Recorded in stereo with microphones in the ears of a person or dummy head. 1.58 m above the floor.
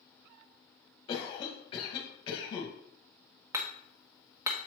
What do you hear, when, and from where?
1.1 s a cough: 35° left (ahead or behind), 1.8 m
3.5 s hammering: 20° right (ahead or behind), 0.9 m